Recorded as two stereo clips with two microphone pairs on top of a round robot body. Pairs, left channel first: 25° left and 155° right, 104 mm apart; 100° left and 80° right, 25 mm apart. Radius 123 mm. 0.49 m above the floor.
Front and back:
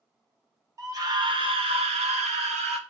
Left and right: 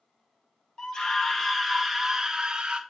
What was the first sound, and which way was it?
A scream, 145° left.